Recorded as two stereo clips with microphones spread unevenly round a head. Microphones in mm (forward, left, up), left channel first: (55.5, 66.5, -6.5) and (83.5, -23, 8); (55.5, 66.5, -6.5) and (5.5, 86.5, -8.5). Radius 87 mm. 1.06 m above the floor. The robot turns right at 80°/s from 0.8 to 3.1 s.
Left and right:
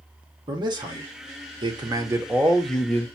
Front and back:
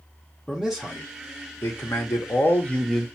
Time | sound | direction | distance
0.5 | a man speaking | 115° right | 0.8 m